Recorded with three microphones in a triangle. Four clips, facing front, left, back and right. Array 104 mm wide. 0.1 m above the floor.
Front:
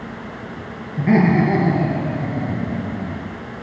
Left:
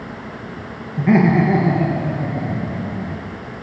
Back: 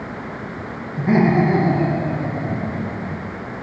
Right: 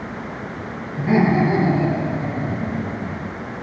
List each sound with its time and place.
1.0 s laughter: 55° left, 1.3 m; by 3.3 s 40° left, 2.5 m